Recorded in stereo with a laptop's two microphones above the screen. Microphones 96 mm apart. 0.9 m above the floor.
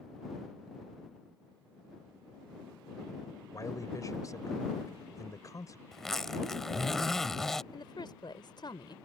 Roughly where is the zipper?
Centre.